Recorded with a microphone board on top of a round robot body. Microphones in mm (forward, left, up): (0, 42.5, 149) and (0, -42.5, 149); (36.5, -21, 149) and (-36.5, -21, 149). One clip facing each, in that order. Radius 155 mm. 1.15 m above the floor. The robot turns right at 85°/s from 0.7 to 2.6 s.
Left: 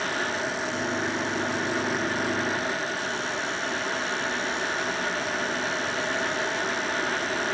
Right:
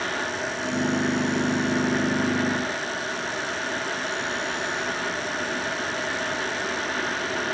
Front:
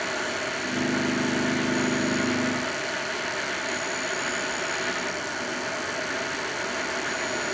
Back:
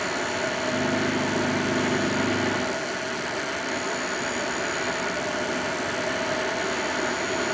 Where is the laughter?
No laughter in this recording.